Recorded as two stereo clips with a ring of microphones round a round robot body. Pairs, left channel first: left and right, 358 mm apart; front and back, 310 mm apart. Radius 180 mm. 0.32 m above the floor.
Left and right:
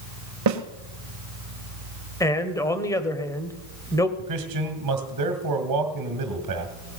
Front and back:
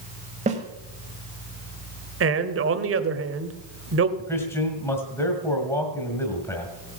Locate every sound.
0.5 s a snare drum: 115° right, 1.3 m
2.2 s a man speaking: 170° left, 1.3 m
4.2 s a man speaking: 80° right, 1.9 m